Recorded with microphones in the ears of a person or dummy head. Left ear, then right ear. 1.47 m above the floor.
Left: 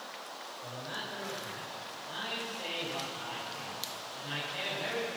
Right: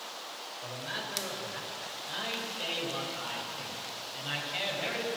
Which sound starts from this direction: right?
A man speaking, at 0.6 s.